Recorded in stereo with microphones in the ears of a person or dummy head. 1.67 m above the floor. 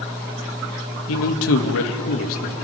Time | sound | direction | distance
1.1 | a man speaking | 80° left | 2 m